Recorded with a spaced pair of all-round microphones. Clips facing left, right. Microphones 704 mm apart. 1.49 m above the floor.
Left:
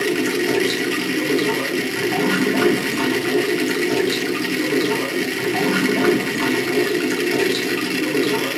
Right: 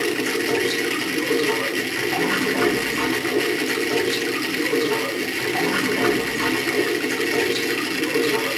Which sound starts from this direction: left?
Running water, at 0.0 s.